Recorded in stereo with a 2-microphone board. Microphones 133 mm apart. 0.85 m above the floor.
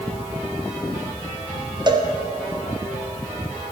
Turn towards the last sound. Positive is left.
turn(degrees=-35)  # may be behind; listen again after turning